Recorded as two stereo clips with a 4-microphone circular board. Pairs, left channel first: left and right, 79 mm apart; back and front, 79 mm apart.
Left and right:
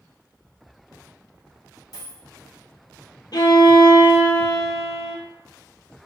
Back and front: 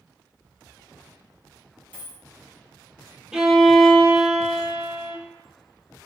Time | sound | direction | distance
1.9 | a dropped coin | 110° left | 1.4 m
3.3 | a violin | 85° left | 0.6 m